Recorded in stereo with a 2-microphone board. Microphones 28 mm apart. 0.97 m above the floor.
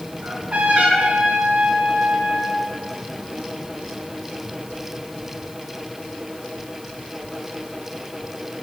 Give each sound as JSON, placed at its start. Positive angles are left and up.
{"t": 0.2, "sound": "a trumpet", "side_deg": -65, "distance_m": 5.0}